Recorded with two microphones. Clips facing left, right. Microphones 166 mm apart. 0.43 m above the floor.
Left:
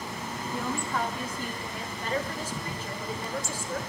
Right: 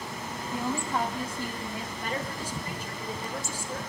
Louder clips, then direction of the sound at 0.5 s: Right 2 dB; 30° right (ahead or behind).